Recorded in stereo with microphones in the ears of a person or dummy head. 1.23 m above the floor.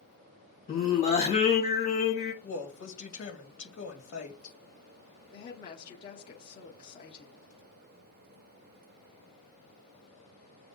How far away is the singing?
About 1.4 m.